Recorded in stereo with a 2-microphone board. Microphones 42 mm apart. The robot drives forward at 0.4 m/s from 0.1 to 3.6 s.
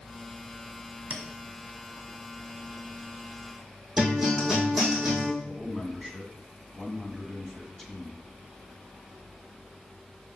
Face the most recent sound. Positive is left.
turn(degrees=10)  # may be behind; listen again after turning